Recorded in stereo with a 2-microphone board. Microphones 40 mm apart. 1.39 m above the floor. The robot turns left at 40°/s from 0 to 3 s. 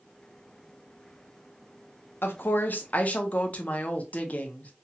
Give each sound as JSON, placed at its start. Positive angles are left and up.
{"t": 2.2, "sound": "a woman speaking", "azimuth_deg": 65, "distance_m": 0.5}